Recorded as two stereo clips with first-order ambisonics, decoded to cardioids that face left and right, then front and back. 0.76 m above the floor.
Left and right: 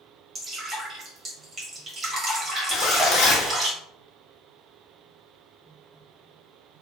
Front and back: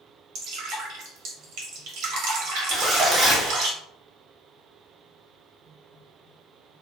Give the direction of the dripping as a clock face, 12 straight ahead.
5 o'clock.